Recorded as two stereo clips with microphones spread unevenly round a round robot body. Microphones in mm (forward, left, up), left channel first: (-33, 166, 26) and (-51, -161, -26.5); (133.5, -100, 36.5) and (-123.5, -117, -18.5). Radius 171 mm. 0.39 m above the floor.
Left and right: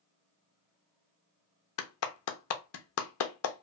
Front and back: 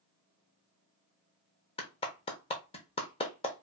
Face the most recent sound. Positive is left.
turn(degrees=80)